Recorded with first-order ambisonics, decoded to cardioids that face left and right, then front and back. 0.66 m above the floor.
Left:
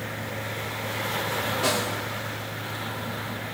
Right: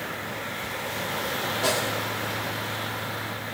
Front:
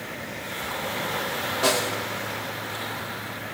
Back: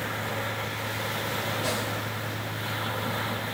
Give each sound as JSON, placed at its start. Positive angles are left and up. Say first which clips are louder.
{"t": 1.6, "sound": "a snare drum", "louder": "right 3 dB, front 6 dB", "azimuth_deg": 10, "distance_m": 1.5}